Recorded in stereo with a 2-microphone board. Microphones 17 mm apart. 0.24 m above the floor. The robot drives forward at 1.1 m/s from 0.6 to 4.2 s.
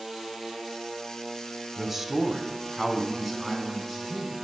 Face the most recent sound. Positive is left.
turn(degrees=-5)  # may be behind; listen again after turning